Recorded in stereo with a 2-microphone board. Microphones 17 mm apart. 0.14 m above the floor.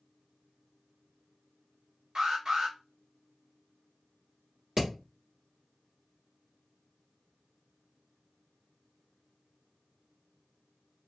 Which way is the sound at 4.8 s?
45° right (ahead or behind).